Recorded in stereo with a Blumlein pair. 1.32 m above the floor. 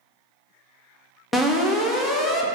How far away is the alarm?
About 0.5 m.